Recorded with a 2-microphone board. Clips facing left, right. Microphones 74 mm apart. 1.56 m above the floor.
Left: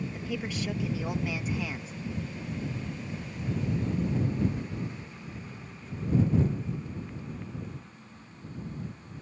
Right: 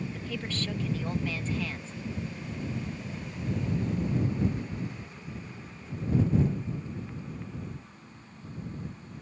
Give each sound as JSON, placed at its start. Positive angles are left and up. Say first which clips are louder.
{"t": 0.1, "sound": "a woman speaking", "louder": "left 1 dB", "side_deg": 10}